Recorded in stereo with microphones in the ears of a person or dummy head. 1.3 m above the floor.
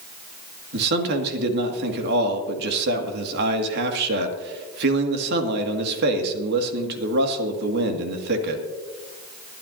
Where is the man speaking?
60° right (ahead or behind), 2 m.